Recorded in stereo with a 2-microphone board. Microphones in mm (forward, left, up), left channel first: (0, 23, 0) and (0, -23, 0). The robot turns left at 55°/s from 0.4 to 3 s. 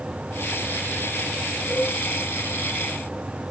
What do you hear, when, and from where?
1.7 s a cowbell: 10° right (ahead or behind), 6 m; by 1.9 s 5° left (ahead or behind), 6 m